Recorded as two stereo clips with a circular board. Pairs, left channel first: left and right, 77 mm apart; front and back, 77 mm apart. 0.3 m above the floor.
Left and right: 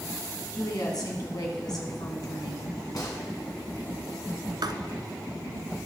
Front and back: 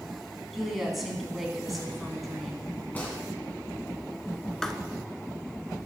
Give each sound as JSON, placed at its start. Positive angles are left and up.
{"t": 0.5, "sound": "a woman speaking", "azimuth_deg": 95, "distance_m": 3.0}
{"t": 3.0, "sound": "a gunshot", "azimuth_deg": 70, "distance_m": 3.0}
{"t": 4.6, "sound": "writing", "azimuth_deg": -80, "distance_m": 0.8}